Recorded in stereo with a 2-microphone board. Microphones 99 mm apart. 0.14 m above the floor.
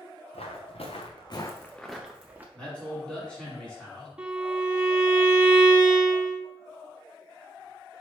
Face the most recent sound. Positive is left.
turn(degrees=-10)  # may be behind; listen again after turning